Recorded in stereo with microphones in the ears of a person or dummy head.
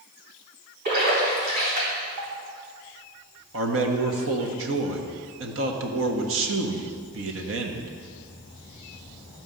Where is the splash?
45° right (ahead or behind), 3.5 m.